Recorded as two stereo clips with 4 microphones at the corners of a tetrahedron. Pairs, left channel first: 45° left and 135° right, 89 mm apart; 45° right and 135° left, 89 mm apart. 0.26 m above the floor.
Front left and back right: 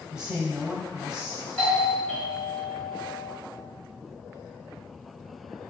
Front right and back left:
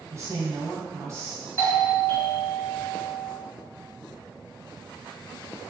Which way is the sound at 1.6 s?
20° right.